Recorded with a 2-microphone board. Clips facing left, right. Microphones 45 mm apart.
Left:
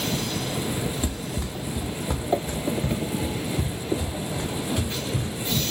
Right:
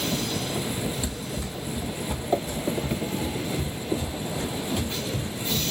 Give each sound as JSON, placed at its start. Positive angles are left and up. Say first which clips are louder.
{"t": 1.0, "sound": "running footsteps", "louder": "left 2 dB", "side_deg": 40, "distance_m": 0.8}